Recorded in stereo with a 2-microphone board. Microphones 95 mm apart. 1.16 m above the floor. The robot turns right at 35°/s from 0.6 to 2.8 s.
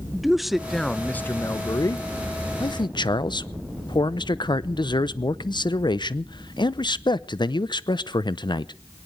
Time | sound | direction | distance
0.1 | a man speaking | straight ahead | 0.5 m
2.6 | a man speaking | 50° left (ahead or behind) | 0.6 m